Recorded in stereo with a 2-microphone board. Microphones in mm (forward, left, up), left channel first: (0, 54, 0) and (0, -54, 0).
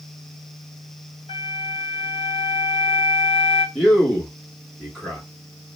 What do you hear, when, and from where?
1.3 s a flute: 55° left (ahead or behind), 1.0 m
3.8 s a man speaking: 5° left (ahead or behind), 2 m